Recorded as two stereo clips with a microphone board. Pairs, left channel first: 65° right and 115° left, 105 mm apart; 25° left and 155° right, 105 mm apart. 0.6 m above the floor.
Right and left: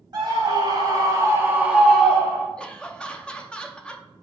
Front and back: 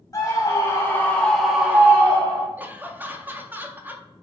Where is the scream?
75° left, 1.9 m; by 2.5 s 135° right, 1.3 m.